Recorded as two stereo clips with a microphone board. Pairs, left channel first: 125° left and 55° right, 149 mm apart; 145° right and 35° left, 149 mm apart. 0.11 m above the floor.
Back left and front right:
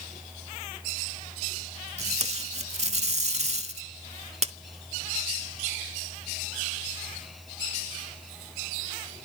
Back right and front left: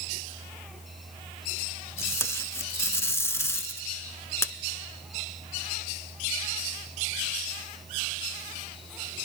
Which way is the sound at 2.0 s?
80° right.